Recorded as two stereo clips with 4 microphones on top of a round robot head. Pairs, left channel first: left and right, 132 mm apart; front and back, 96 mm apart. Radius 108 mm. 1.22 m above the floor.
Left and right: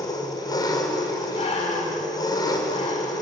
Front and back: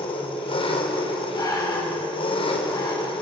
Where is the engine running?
30° left, 4 m.